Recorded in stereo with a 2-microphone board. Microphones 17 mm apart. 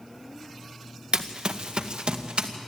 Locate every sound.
1.1 s running footsteps: 60° right (ahead or behind), 1.3 m; by 2.5 s 70° right (ahead or behind), 2 m